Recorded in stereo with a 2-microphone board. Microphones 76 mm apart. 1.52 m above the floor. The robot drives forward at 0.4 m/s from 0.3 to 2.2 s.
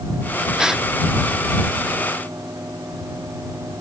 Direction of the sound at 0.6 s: 10° right (ahead or behind).